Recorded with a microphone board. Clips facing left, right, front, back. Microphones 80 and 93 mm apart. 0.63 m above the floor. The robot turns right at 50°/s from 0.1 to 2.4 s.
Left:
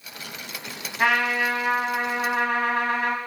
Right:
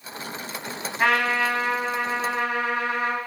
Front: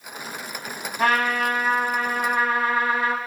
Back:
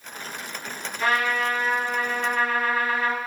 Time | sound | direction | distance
1.0 | a trumpet | straight ahead | 0.7 m